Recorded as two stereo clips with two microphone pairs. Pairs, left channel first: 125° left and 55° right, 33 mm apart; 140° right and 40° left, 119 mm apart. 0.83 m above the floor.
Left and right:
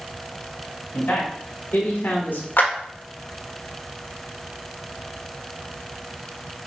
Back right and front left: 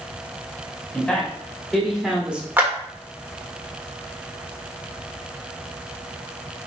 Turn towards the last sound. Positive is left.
turn(degrees=115)